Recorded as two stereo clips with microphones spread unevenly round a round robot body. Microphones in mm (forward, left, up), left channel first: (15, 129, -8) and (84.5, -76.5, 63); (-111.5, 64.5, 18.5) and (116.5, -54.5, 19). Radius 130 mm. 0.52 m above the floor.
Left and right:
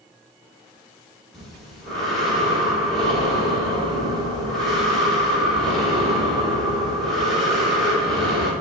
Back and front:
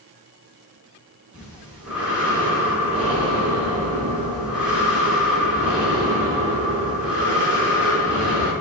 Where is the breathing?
55° left, 1.4 m.